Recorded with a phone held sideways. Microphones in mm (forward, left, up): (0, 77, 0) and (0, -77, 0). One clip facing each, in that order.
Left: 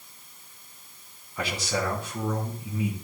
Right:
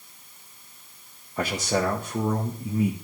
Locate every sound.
1.4 s a man speaking: 40° right (ahead or behind), 1.1 m